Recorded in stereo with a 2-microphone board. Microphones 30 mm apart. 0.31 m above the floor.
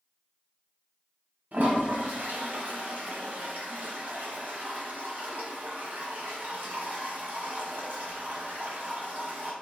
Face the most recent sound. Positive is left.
turn(degrees=-65)  # may be behind; listen again after turning